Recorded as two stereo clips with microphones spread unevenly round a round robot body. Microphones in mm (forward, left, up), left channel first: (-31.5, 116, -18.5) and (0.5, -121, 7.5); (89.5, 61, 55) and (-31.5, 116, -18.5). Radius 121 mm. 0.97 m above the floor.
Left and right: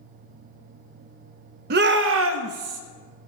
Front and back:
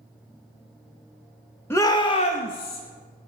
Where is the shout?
125° right, 0.9 m; by 2.8 s 70° right, 1.0 m.